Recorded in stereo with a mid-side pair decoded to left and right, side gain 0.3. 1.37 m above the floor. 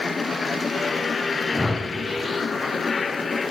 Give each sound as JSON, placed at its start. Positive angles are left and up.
{"t": 1.5, "sound": "a whoosh", "azimuth_deg": 20, "distance_m": 0.6}